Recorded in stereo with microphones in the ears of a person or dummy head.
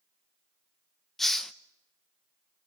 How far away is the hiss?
About 0.6 m.